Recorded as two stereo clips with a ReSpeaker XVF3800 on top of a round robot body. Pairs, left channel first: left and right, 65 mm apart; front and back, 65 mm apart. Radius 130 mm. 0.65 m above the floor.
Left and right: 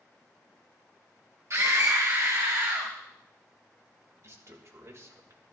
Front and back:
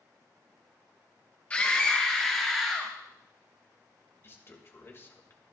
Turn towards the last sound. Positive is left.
turn(degrees=-50)